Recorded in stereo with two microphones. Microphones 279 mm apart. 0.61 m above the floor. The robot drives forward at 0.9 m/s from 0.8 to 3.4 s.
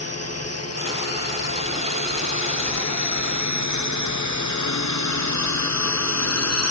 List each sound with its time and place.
0.0 s a drone: 60° left (ahead or behind); by 6.7 s 65° left (ahead or behind)